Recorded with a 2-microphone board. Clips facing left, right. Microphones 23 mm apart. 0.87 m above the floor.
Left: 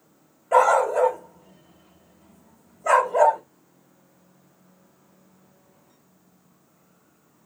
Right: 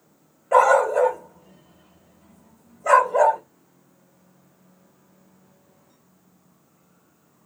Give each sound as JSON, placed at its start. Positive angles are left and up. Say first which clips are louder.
{"t": 0.5, "sound": "a dog barking", "louder": "right 2 dB", "side_deg": -10, "distance_m": 1.3}